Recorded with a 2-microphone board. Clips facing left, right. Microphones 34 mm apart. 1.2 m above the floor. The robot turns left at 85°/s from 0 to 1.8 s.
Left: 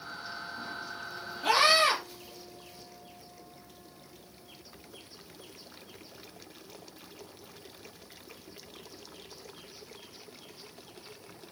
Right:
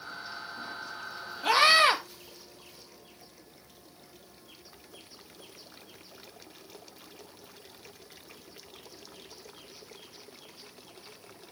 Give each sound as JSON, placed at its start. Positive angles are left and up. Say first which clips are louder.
{"t": 1.4, "sound": "a scream", "louder": "right 2 dB", "azimuth_deg": -5, "distance_m": 2.0}